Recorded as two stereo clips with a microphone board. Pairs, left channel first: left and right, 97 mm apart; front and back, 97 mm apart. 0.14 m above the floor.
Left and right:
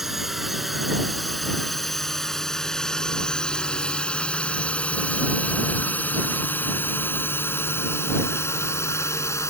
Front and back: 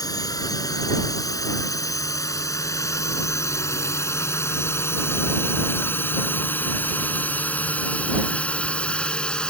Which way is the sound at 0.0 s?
5° right.